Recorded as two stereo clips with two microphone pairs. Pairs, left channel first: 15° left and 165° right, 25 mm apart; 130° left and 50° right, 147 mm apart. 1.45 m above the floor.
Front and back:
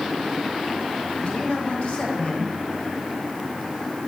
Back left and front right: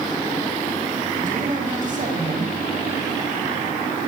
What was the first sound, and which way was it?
A man speaking, 20° right.